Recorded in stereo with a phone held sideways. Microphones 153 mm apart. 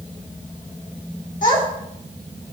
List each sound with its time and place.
1.4 s a child speaking: 60° left (ahead or behind), 4 m